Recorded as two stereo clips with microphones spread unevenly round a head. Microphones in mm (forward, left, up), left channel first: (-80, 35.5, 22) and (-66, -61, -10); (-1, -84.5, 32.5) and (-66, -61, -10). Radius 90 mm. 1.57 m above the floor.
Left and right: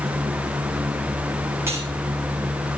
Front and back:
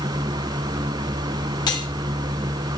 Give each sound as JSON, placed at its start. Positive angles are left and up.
{"t": 1.7, "sound": "cutlery clinking", "azimuth_deg": 0, "distance_m": 3.5}